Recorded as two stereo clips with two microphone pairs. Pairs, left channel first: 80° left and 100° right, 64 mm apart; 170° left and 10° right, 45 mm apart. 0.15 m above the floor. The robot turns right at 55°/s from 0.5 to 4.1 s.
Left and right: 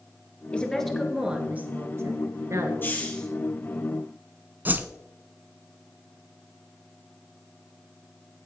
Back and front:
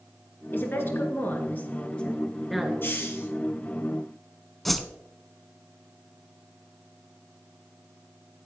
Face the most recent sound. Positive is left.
turn(degrees=-110)